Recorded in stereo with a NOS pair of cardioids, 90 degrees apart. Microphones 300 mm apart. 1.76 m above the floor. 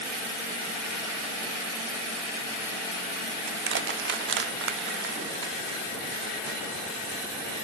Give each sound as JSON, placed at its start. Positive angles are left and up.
{"t": 3.5, "sound": "crushing", "azimuth_deg": -40, "distance_m": 0.6}